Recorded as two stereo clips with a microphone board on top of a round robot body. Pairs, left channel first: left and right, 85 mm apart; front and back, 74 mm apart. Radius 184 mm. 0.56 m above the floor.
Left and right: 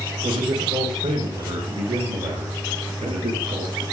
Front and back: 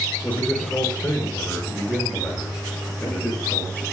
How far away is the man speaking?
About 8.5 m.